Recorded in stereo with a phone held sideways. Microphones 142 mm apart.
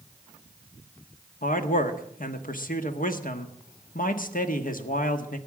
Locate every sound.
1.4 s a man speaking: 75° left (ahead or behind), 1.4 m